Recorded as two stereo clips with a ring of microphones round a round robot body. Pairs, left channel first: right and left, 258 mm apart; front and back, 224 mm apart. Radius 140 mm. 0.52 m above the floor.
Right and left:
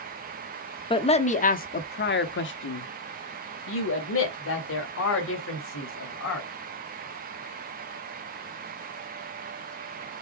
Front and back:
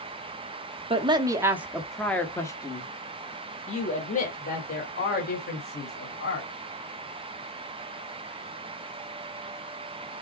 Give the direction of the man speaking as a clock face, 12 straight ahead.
5 o'clock.